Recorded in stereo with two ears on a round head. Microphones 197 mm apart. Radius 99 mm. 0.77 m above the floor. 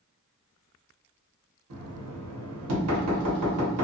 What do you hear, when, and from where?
1.7 s knocking: 80° right, 1.0 m